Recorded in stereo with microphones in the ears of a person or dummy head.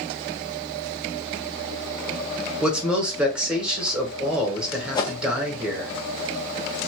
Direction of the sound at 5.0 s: 25° left (ahead or behind).